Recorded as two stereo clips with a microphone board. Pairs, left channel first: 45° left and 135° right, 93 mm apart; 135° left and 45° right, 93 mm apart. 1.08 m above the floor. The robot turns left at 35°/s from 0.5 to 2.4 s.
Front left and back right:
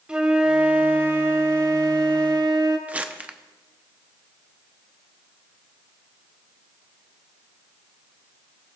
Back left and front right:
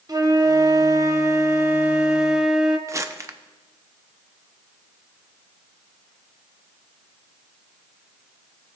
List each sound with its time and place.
0.1 s a flute: 60° right, 0.8 m; by 2.8 s 125° right, 0.8 m
2.9 s crumpling: 70° right, 0.5 m